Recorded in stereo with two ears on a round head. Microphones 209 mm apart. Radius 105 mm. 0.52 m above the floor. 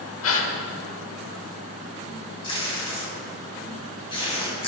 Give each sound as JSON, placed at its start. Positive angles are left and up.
{"t": 0.2, "sound": "a gasp", "side_deg": 60, "distance_m": 1.1}
{"t": 2.4, "sound": "tape being pulled", "side_deg": 25, "distance_m": 3.0}